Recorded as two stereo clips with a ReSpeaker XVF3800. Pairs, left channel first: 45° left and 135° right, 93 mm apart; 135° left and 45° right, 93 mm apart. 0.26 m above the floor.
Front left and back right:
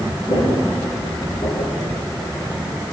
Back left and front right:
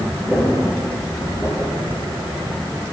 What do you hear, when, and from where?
0.3 s footsteps: 45° left, 7.5 m; by 2.3 s 55° left, 7 m